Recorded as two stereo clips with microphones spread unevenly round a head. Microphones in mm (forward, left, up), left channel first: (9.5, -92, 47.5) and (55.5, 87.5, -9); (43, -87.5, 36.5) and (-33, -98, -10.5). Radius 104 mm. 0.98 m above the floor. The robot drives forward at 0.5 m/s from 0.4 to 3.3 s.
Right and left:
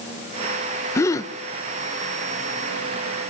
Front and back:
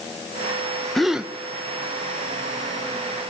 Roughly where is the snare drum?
No snare drum in this recording.